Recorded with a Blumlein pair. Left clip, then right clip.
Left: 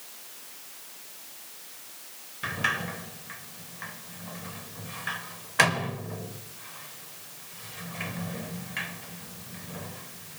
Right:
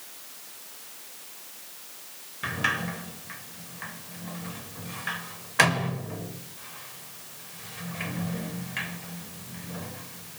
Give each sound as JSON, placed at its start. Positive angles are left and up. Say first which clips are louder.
{"t": 2.4, "sound": "a sliding door", "louder": "right 1 dB", "azimuth_deg": 0, "distance_m": 0.7}